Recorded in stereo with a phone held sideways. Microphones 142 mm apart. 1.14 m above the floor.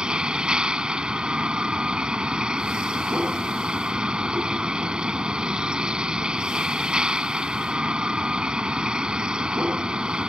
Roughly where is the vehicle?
Centre.